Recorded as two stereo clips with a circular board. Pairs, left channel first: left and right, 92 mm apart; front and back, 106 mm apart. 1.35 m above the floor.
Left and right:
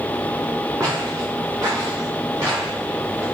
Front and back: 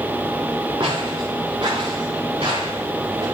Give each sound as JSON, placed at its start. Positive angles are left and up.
{"t": 0.8, "sound": "footsteps", "azimuth_deg": -140, "distance_m": 6.5}